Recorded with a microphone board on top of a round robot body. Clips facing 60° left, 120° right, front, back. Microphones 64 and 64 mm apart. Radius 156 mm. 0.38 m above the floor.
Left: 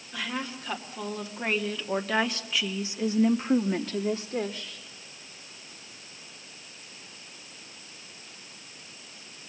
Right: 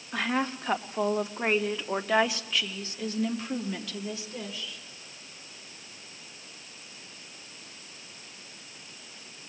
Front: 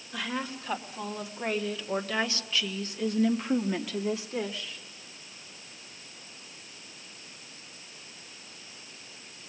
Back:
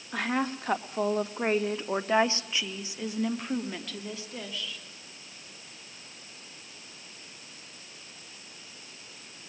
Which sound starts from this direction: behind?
A woman speaking, at 0.1 s.